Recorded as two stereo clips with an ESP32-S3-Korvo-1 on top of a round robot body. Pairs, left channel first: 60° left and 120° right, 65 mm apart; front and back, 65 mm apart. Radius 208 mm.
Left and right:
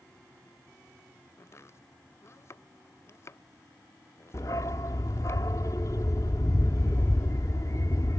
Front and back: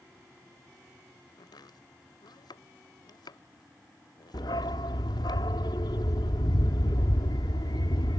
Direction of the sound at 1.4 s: 10° left.